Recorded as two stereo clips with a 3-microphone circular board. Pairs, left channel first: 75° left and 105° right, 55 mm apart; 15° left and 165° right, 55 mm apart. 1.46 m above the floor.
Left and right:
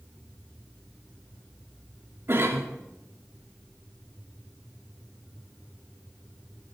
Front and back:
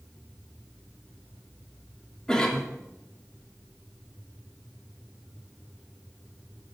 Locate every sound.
2.3 s a cough: 60° right, 3 m